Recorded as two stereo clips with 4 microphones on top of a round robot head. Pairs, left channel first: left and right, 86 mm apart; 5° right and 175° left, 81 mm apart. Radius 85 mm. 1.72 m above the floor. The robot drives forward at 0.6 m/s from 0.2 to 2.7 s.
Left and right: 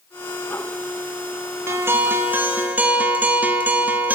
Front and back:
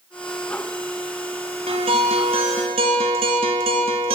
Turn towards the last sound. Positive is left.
turn(degrees=-160)